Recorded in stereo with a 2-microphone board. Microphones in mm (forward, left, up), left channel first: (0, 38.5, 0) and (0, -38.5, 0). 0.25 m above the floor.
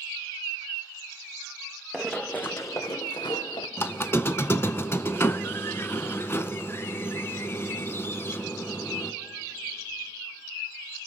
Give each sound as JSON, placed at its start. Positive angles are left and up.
{"t": 1.9, "sound": "running footsteps", "side_deg": 0, "distance_m": 1.1}
{"t": 3.8, "sound": "a squeak", "side_deg": 30, "distance_m": 0.5}